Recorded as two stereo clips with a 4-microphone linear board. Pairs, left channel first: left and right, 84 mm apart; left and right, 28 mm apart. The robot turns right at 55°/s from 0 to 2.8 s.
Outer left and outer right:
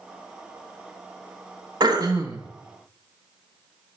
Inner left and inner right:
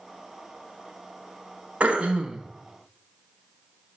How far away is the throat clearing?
About 1.0 m.